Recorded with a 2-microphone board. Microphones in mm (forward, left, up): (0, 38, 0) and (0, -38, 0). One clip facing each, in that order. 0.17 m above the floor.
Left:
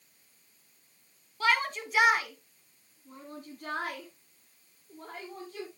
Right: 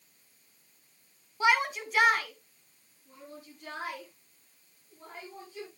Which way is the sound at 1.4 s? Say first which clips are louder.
Right 2 dB; 15° right (ahead or behind).